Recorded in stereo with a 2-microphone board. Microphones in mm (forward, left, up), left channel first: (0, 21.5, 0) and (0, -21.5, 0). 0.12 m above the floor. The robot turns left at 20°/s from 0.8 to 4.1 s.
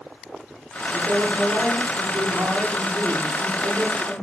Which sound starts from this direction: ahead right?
A man speaking, at 0.9 s.